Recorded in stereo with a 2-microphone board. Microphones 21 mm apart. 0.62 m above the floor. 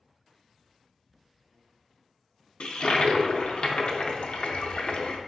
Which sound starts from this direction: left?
A toilet flushing, at 2.6 s.